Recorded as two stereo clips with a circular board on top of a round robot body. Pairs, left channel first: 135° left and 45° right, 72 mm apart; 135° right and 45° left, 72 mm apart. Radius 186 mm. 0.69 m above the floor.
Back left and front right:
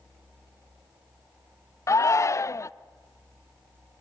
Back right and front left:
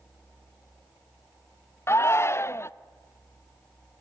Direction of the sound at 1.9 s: 175° left.